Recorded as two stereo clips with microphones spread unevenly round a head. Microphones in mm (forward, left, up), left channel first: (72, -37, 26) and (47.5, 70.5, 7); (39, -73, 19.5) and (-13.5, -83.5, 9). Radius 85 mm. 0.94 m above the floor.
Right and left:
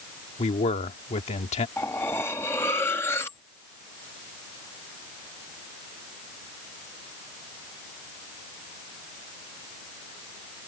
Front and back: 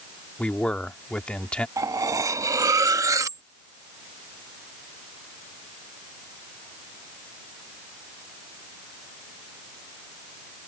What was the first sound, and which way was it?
A man speaking, 60° right.